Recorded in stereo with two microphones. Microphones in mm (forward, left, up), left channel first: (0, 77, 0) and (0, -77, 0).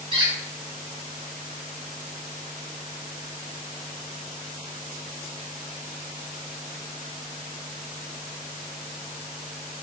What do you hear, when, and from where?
0.1 s a squeak: 35° right (ahead or behind), 1.0 m